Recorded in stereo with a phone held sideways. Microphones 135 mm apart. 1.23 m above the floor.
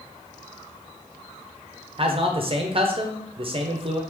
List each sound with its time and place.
2.0 s a man speaking: 45° right (ahead or behind), 0.7 m